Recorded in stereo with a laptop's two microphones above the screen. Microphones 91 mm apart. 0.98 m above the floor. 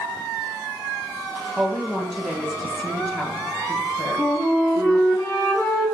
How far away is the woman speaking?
About 0.8 m.